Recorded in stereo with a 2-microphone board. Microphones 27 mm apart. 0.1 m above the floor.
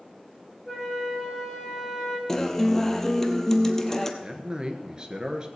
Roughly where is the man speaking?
Right.